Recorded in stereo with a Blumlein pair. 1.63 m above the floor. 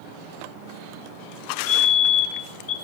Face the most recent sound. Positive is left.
turn(degrees=55)